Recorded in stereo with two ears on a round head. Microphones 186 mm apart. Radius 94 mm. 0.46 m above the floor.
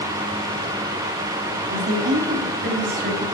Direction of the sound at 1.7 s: 55° right (ahead or behind).